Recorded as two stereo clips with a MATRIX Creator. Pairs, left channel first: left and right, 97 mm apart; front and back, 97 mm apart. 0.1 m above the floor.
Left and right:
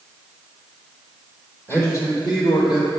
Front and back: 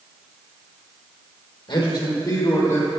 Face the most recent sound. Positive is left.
turn(degrees=65)